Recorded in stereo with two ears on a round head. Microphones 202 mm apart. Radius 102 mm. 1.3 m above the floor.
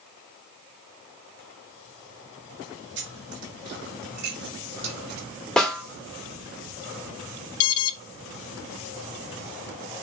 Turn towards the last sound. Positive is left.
turn(degrees=75)  # may be behind; listen again after turning